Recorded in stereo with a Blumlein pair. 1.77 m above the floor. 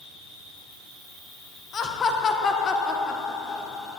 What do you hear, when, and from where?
0.0 s an insect: 20° left, 1.4 m
1.7 s laughter: 25° left, 0.5 m